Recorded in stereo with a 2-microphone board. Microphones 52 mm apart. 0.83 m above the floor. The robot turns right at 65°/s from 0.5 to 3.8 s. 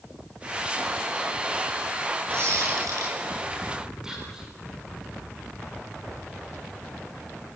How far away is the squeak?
About 7.5 m.